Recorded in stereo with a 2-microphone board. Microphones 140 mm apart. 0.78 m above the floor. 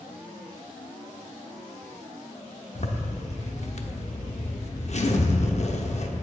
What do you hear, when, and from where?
2.8 s a zipper: 50° left (ahead or behind), 0.6 m